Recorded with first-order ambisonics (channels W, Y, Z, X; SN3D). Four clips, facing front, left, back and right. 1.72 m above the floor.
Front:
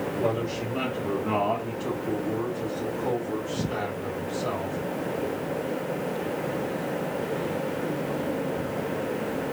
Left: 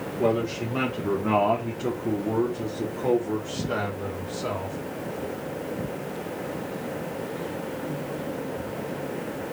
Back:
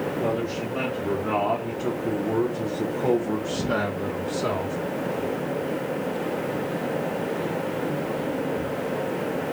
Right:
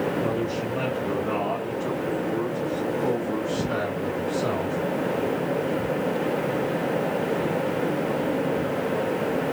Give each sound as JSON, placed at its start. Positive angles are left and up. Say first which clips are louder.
{"t": 0.2, "sound": "a man speaking", "louder": "left 1 dB, front 1 dB", "azimuth_deg": 85, "distance_m": 2.0}